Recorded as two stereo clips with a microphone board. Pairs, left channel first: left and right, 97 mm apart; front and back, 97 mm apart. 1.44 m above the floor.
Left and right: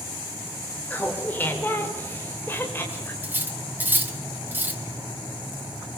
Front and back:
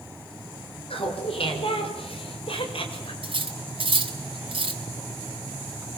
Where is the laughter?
15° left, 5 m; by 3.1 s 20° left, 6.5 m.